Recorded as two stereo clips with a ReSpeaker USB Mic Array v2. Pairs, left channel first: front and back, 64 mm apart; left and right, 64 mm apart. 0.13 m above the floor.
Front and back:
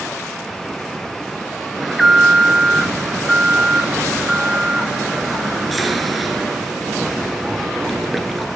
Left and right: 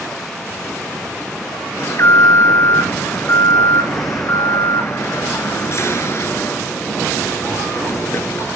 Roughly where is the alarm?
Left.